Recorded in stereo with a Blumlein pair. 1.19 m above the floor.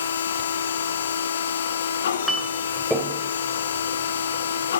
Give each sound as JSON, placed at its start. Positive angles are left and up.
{"t": 0.0, "sound": "a machine running", "azimuth_deg": 65, "distance_m": 1.0}
{"t": 2.3, "sound": "a clink", "azimuth_deg": 0, "distance_m": 3.0}